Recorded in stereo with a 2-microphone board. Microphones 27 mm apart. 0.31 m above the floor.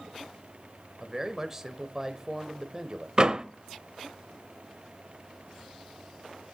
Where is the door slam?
30° right (ahead or behind), 0.8 m.